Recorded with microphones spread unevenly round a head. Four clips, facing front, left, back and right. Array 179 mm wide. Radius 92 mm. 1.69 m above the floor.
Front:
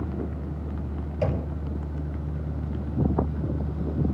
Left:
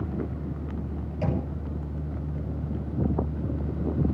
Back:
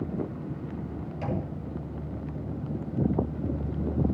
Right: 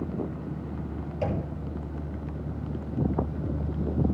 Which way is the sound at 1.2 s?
20° right.